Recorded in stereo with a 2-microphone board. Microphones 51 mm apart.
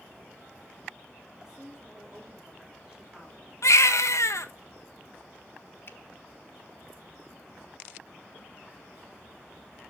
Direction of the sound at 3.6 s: 75° left (ahead or behind).